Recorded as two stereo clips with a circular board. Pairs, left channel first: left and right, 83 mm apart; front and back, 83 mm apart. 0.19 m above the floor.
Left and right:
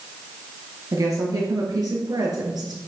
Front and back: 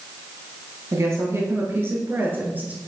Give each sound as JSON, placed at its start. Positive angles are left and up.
{"t": 0.9, "sound": "a woman speaking", "azimuth_deg": -130, "distance_m": 3.5}